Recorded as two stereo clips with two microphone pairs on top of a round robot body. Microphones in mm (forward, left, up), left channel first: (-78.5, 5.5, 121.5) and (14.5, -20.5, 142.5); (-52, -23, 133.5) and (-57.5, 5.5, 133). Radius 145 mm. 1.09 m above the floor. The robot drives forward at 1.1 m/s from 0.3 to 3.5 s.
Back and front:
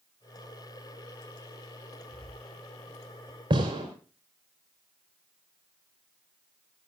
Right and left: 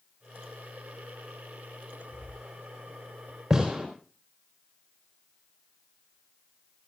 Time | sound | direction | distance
2.1 | breathing | 115° right | 6.5 m
3.5 | a gunshot | 20° left | 4 m